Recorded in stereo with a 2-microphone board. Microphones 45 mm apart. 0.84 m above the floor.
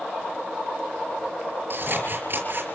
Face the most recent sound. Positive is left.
turn(degrees=-50)  # may be behind; listen again after turning